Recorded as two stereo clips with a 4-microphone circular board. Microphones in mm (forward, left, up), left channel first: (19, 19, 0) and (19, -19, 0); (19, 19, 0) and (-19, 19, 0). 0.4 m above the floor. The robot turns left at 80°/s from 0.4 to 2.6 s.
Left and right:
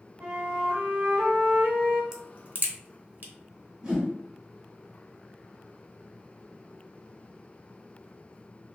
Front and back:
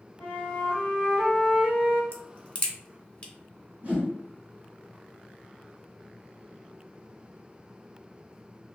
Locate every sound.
0.2 s a flute: 25° right, 1.2 m; by 2.0 s 150° right, 1.2 m
2.1 s a crack: 15° right, 0.6 m; by 3.3 s 50° right, 0.6 m
3.8 s a whoosh: 160° right, 1.9 m